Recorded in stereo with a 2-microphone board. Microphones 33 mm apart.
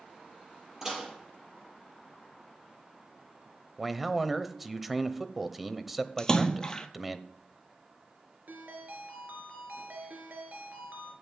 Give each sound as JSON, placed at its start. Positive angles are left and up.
{"t": 0.8, "sound": "dishes clattering", "side_deg": -15, "distance_m": 5.0}
{"t": 3.8, "sound": "a man speaking", "side_deg": -5, "distance_m": 0.9}
{"t": 6.2, "sound": "a splash", "side_deg": 20, "distance_m": 1.2}
{"t": 8.5, "sound": "a ringtone", "side_deg": -60, "distance_m": 2.5}